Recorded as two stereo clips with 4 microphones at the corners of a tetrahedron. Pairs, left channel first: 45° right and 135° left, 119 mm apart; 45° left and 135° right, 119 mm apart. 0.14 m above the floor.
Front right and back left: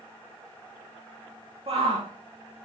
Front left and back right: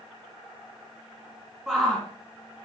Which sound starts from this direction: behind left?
A shout, at 1.7 s.